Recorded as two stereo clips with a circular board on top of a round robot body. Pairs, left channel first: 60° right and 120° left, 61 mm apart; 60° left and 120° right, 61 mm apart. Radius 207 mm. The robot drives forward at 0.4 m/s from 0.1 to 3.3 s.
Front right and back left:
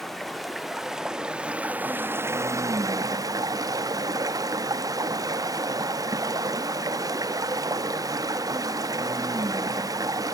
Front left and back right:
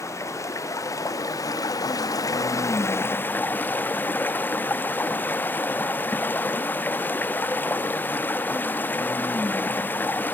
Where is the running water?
25° left, 1.2 m; by 10.3 s 120° left, 0.6 m.